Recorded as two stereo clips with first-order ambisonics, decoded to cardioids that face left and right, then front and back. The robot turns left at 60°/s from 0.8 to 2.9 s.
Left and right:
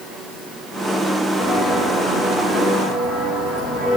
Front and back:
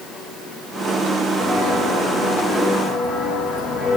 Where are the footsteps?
130° left, 7 m; by 4.0 s 50° left, 7 m.